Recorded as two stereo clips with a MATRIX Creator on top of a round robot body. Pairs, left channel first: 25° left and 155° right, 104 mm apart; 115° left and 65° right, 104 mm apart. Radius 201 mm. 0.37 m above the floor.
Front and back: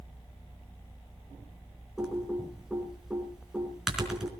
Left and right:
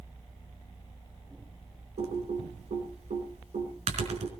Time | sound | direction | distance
2.0 | typing on a keyboard | 70° right | 3.5 m